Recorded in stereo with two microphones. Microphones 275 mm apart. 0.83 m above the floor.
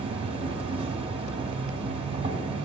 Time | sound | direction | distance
0.0 | an insect | 20° right (ahead or behind) | 1.8 m